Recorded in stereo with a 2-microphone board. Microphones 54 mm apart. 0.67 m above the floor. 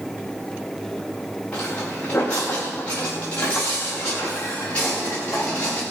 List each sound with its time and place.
1.5 s footsteps: 25° left (ahead or behind), 5.5 m